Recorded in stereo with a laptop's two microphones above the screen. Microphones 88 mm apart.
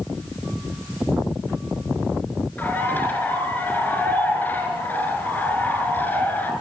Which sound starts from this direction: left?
A bird, at 2.6 s.